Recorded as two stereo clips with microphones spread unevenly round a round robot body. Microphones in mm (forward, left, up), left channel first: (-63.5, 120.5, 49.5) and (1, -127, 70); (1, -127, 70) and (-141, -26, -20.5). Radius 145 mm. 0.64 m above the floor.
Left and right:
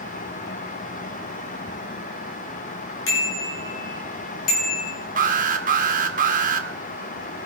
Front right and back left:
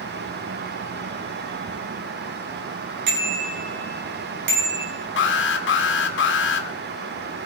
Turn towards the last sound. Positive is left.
turn(degrees=-35)